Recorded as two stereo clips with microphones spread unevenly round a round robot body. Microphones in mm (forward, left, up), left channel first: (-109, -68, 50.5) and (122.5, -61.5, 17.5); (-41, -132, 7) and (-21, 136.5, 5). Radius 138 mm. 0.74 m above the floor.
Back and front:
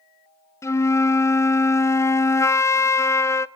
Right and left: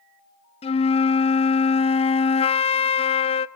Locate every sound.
0.6 s a flute: 95° right, 0.6 m